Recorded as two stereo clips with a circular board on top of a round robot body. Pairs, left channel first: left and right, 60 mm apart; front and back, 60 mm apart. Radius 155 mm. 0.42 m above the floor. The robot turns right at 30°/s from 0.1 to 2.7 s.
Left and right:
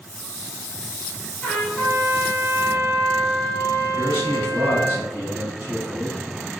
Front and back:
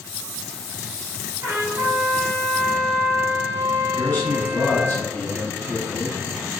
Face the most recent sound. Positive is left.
turn(degrees=-35)